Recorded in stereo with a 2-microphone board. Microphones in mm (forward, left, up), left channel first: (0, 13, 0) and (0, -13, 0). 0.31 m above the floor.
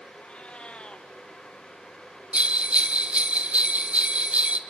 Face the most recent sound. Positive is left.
turn(degrees=-55)  # may be behind; listen again after turning